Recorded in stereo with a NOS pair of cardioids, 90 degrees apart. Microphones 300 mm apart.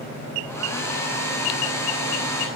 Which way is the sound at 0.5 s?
10° left.